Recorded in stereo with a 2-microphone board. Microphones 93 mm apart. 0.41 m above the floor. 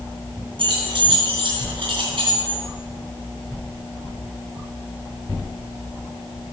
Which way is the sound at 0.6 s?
65° right (ahead or behind).